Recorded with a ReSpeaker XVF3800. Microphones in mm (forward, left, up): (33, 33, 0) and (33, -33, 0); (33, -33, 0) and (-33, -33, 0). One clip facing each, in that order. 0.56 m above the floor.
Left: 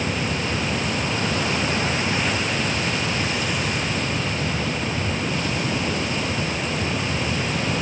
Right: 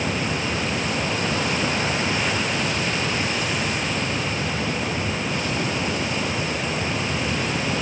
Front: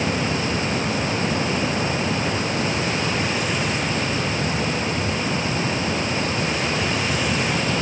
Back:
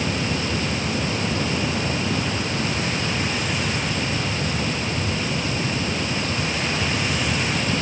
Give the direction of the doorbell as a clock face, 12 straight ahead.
No doorbell in this recording.